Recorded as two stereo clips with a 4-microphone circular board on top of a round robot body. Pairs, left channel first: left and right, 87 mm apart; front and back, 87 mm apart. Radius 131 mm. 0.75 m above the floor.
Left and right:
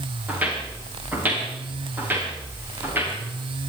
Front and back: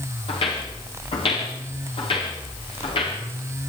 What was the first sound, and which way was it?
Footsteps, 15° right.